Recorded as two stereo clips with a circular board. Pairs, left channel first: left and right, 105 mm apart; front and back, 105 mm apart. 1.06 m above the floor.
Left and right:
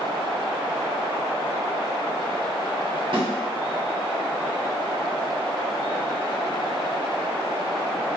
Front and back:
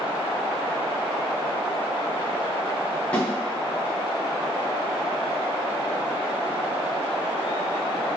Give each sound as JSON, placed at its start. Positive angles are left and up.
{"t": 3.1, "sound": "a snare drum", "azimuth_deg": -75, "distance_m": 0.9}